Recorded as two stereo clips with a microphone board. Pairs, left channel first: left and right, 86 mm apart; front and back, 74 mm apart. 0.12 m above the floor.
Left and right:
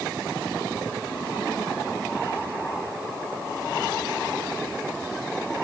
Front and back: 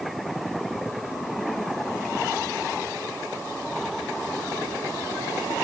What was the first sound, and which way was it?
Only background noise.